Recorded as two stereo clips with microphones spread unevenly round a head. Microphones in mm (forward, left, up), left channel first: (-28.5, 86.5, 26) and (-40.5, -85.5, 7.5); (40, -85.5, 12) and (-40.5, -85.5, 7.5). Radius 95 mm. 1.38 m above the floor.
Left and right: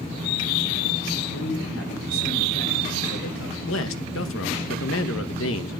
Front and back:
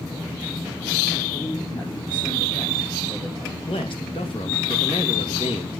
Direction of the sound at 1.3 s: 65° left.